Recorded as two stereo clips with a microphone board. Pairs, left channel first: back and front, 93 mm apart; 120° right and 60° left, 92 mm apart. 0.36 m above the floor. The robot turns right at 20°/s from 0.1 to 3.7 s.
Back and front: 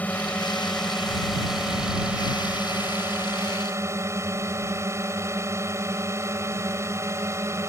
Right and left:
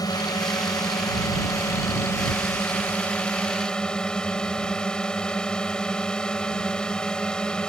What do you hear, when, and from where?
0.0 s a drone: 115° right; by 7.7 s 40° right